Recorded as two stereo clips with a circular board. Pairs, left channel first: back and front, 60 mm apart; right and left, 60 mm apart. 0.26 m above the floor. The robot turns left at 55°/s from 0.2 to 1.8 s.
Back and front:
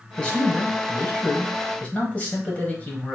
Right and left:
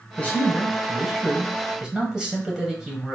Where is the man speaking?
120° right, 1.4 m; by 3.2 s 150° left, 1.4 m.